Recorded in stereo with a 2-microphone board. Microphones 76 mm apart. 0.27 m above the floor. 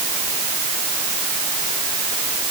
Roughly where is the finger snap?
No finger snap in this recording.